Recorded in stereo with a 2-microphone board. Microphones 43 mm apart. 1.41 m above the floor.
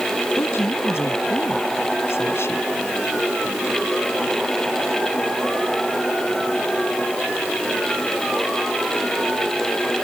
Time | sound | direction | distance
0.4 | a woman speaking | 80° left | ?